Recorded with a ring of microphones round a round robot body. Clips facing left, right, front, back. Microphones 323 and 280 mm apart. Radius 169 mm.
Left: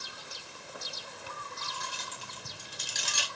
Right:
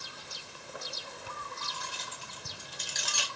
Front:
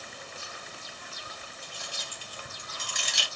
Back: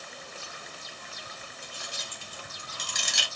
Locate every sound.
1.6 s keys jangling: 105° left, 1.9 m; by 3.3 s 160° left, 0.7 m